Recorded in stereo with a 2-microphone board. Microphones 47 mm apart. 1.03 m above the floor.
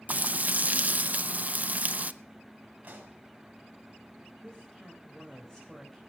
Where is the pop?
35° right (ahead or behind), 6.5 m.